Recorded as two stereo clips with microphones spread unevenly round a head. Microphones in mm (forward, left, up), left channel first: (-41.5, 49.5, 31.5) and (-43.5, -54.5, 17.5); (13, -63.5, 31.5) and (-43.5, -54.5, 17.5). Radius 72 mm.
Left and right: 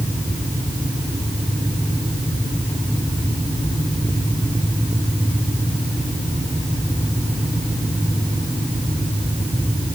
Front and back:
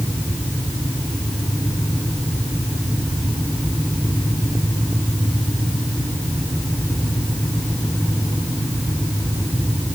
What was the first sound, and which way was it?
Only background noise.